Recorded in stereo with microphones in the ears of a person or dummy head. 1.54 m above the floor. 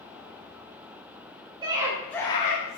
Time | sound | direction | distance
1.6 | a scream | 20° right (ahead or behind) | 0.9 m